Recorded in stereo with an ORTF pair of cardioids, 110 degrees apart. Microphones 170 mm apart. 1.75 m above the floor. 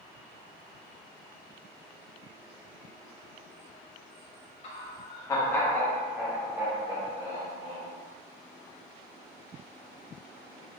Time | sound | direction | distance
4.6 | laughter | 40° left | 1.0 m